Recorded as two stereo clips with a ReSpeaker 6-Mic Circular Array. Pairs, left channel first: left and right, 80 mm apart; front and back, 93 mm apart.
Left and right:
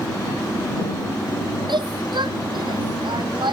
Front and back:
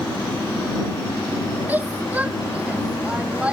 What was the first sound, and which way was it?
A shout, 105° right.